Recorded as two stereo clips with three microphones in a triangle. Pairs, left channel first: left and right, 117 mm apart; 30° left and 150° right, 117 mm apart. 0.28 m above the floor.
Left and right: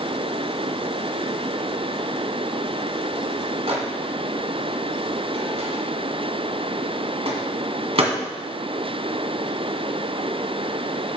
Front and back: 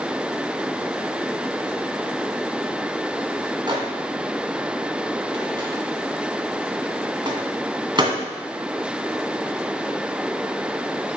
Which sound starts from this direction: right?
A microwave, at 3.7 s.